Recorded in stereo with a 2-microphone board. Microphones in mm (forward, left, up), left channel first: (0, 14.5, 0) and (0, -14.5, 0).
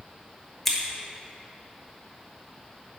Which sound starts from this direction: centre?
Scissors, at 0.7 s.